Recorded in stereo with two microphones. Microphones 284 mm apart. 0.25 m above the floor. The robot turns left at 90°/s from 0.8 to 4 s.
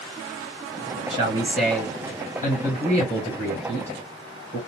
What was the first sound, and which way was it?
A man speaking, 20° right (ahead or behind).